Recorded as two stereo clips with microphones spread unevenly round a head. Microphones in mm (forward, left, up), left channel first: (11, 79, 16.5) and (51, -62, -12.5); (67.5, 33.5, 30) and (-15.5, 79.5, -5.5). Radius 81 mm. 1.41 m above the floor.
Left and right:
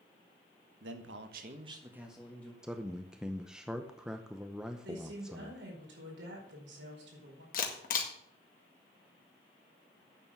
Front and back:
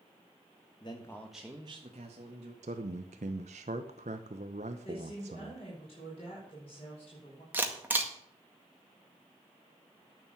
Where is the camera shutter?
80° left, 1.9 m.